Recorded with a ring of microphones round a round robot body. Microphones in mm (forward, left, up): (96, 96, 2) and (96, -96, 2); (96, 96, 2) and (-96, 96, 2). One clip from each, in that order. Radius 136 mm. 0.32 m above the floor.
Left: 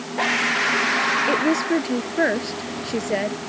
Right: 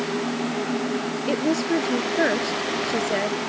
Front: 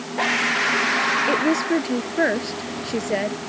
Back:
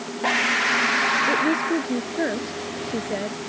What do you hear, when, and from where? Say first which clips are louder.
1.3 s a woman speaking: left 3 dB, front 1 dB; 5° left